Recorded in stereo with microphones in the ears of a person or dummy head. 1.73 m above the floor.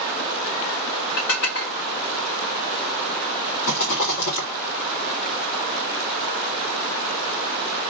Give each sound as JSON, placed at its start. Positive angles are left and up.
{"t": 1.2, "sound": "dishes clattering", "side_deg": 50, "distance_m": 1.2}
{"t": 3.6, "sound": "a rattle", "side_deg": 50, "distance_m": 1.8}